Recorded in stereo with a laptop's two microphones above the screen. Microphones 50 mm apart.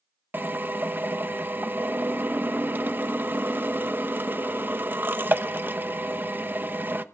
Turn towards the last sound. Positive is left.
turn(degrees=-45)  # may be behind; listen again after turning